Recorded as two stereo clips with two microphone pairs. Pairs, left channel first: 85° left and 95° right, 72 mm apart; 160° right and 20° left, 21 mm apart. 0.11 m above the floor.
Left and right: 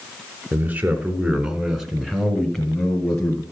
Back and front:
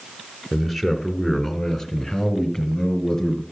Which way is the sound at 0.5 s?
55° right.